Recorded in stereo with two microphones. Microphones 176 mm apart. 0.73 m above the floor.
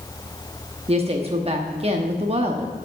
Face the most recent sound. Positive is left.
turn(degrees=-35)  # may be behind; listen again after turning